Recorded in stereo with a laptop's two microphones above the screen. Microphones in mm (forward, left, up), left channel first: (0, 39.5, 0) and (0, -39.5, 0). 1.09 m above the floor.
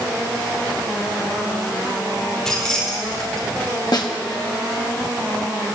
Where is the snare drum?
60° left (ahead or behind), 0.9 m.